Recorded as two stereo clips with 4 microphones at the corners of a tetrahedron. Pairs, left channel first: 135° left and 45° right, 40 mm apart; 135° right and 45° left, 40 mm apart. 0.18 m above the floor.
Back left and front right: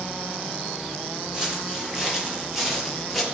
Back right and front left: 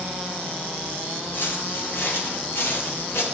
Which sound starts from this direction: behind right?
Footsteps, at 1.3 s.